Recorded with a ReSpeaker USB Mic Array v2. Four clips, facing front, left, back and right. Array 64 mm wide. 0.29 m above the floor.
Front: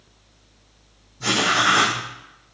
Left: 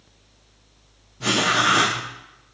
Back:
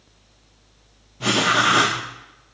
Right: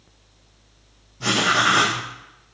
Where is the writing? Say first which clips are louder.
Right 1 dB, back 1 dB; straight behind, 2 m.